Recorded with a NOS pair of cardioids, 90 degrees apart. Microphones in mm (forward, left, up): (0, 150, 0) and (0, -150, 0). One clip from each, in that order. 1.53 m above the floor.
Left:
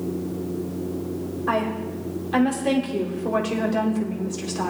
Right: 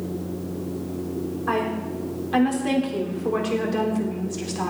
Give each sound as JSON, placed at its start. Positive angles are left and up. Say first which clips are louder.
{"t": 1.5, "sound": "a woman speaking", "louder": "left 1 dB", "azimuth_deg": 0, "distance_m": 4.5}